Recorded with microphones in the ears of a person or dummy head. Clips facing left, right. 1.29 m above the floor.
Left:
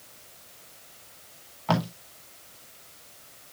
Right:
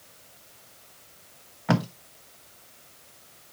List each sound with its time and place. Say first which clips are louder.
1.7 s tape being pulled: right 2 dB; 25° right (ahead or behind), 0.9 m